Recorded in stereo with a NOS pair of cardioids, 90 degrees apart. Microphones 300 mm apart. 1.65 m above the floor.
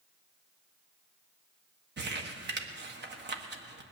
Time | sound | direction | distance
2.0 | crumpling | 35° right | 1.5 m